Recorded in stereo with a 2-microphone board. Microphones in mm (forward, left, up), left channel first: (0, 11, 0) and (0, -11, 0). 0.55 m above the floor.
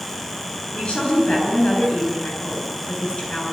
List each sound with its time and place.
0.7 s a woman speaking: 35° left (ahead or behind), 8.5 m